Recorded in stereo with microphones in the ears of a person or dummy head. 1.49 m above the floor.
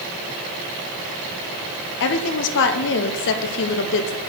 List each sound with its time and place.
2.0 s a woman speaking: 65° left (ahead or behind), 0.8 m